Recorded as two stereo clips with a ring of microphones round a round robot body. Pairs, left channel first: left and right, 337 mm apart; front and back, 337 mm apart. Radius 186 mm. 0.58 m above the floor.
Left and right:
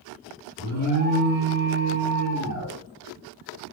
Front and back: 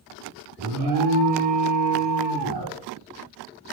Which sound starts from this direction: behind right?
An alarm, at 0.6 s.